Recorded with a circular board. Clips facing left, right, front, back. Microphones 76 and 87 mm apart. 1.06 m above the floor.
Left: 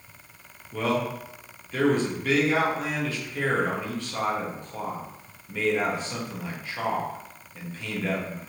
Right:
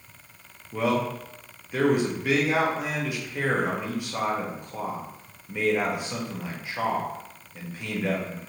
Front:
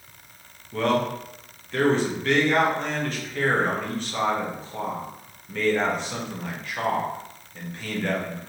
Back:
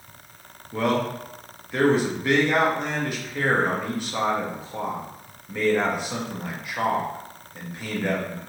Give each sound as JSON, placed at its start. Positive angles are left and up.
{"t": 0.7, "sound": "a man speaking", "azimuth_deg": -125, "distance_m": 0.7}